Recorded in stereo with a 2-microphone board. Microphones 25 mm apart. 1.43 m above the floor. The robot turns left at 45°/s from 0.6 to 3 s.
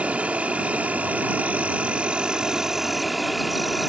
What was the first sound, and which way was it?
An insect, 65° right.